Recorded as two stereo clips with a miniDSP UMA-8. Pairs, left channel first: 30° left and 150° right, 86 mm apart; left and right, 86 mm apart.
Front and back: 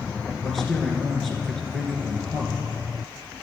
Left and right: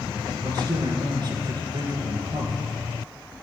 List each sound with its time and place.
0.4 s a man speaking: 55° right, 3 m